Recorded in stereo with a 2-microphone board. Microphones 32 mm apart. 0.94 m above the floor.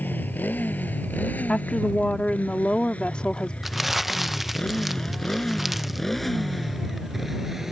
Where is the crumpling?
5° right (ahead or behind).